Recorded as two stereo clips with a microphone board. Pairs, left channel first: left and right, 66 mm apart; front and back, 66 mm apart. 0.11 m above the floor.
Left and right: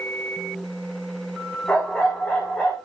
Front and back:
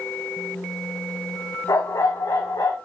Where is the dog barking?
10° left, 4 m.